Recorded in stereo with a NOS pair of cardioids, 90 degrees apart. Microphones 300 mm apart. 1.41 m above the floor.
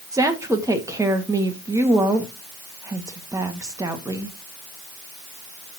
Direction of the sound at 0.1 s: 10° right.